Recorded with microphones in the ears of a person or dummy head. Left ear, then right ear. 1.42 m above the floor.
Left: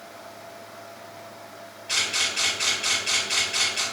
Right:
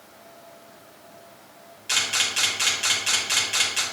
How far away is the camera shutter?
About 1.2 m.